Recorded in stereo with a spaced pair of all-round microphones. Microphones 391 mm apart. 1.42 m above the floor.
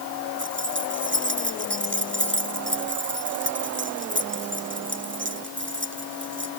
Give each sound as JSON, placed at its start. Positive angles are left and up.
{"t": 0.4, "sound": "keys jangling", "side_deg": -30}